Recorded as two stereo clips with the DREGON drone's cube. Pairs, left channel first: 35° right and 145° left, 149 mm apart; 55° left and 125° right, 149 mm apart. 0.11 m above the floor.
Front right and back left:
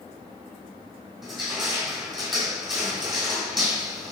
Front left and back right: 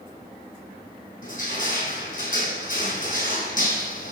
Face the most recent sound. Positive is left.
turn(degrees=60)